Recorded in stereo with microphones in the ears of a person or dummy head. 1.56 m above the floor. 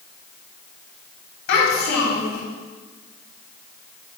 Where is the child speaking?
60° left (ahead or behind), 2.5 m.